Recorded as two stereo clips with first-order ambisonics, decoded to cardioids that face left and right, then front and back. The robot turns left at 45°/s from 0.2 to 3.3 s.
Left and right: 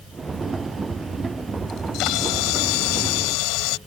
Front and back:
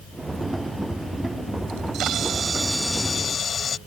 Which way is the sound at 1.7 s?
145° left.